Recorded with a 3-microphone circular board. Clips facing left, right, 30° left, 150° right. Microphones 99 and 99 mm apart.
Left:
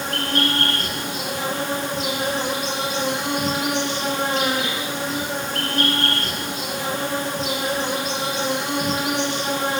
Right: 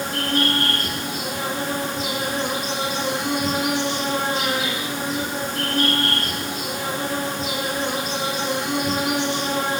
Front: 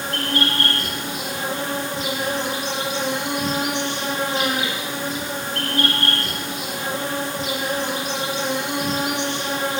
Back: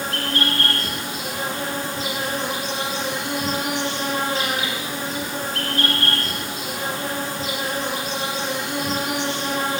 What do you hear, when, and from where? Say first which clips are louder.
0.0 s an insect: right 1 dB, front 1 dB; 95° left, 8 m